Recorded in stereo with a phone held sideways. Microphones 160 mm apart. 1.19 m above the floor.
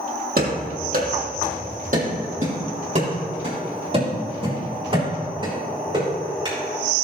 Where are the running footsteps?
65° right (ahead or behind), 2.5 m; by 6.5 s 25° right (ahead or behind), 5 m.